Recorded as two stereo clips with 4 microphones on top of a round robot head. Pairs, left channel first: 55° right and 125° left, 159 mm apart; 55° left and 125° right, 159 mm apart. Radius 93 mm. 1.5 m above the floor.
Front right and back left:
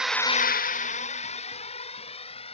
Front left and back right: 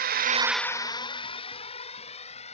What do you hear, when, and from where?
0.0 s a drone: 150° right; by 2.5 s straight ahead